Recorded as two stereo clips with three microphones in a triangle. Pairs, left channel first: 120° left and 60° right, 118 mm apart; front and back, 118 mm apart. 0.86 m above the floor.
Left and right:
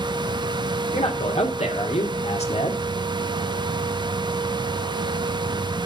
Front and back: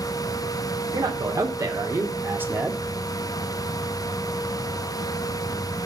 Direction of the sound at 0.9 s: 125° left.